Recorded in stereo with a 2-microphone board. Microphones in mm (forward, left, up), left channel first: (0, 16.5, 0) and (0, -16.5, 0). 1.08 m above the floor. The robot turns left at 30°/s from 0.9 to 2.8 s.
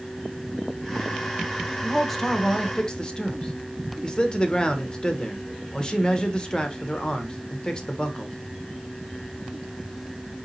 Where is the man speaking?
5° left (ahead or behind), 0.8 m; by 8.4 s 25° left (ahead or behind), 0.8 m.